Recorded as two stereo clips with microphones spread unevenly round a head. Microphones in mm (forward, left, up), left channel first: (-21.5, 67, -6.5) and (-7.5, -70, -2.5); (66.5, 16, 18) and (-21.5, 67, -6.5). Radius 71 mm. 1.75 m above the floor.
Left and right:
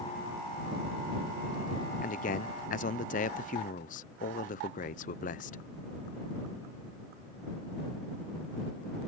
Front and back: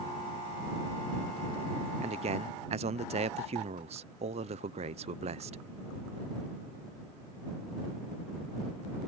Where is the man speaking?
130° left.